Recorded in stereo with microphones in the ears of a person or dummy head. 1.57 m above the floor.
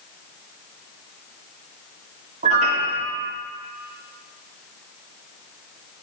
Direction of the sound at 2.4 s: 45° right (ahead or behind).